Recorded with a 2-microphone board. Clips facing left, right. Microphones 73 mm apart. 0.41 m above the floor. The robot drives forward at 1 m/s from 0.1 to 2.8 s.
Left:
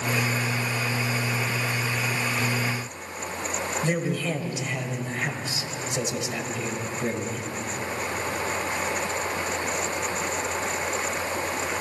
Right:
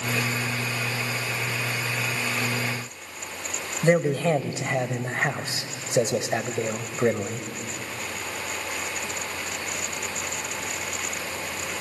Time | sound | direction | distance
3.8 | a man speaking | 50° right (ahead or behind) | 1.8 m